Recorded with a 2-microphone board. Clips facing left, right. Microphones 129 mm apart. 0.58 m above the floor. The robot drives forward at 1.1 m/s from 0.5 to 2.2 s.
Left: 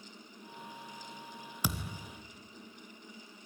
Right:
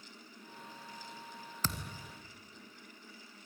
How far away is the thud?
About 1.5 m.